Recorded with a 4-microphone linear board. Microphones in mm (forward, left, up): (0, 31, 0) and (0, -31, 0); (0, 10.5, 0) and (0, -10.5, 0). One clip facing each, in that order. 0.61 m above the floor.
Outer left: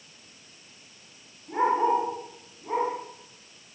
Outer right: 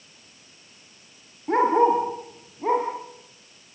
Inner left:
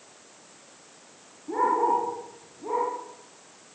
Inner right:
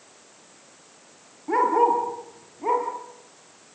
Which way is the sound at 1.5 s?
70° right (ahead or behind).